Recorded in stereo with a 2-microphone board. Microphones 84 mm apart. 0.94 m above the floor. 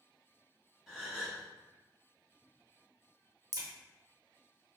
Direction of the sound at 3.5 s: 50° right (ahead or behind).